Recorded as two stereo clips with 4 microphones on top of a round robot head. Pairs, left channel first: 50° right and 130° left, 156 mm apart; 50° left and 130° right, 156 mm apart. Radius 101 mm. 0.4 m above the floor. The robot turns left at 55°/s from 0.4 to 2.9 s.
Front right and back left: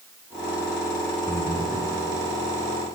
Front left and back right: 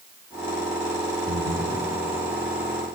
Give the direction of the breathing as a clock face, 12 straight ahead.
4 o'clock.